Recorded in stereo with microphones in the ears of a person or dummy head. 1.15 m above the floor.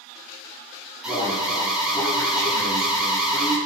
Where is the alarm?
5° left (ahead or behind), 2.5 m.